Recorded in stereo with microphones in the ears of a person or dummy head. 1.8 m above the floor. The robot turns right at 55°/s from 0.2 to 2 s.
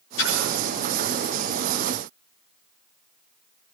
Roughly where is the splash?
Left.